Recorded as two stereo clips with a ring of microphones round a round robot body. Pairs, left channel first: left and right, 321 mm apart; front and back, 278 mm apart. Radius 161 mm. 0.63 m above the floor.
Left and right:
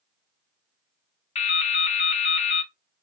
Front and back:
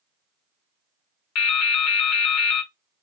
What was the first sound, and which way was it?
Dripping, 20° left.